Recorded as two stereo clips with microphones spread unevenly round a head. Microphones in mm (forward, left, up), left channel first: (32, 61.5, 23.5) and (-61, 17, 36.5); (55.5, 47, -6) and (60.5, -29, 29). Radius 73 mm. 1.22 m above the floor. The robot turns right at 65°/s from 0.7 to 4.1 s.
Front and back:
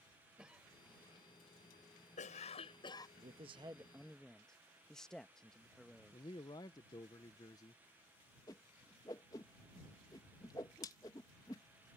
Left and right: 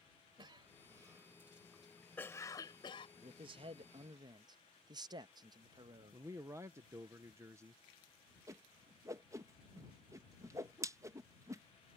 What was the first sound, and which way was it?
A cough, 70° right.